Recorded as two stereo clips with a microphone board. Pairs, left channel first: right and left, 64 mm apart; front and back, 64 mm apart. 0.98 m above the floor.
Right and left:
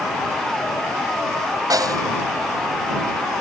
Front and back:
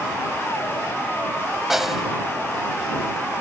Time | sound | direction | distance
1.7 | a snare drum | 95° left | ?